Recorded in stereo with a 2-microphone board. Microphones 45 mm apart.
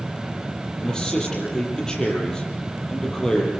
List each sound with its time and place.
0.8 s a man speaking: 15° left (ahead or behind), 7.5 m